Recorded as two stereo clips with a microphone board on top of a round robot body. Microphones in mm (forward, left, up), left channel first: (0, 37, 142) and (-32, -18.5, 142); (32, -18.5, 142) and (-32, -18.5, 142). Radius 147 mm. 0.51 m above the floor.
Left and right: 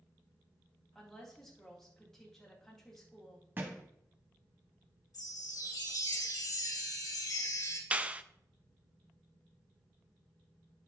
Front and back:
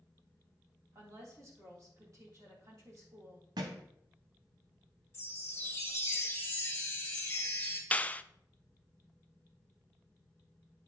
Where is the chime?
55° left, 2.5 m.